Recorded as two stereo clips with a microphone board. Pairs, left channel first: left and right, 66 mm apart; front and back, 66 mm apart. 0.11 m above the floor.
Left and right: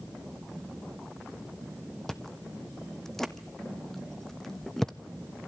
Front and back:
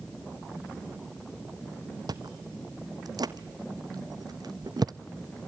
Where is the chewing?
175° left, 0.9 m.